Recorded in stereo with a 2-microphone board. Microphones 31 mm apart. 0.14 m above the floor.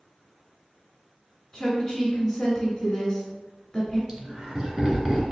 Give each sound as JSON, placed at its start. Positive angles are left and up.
{"t": 1.5, "sound": "a woman speaking", "side_deg": 5, "distance_m": 1.4}
{"t": 4.1, "sound": "laughter", "side_deg": -25, "distance_m": 1.7}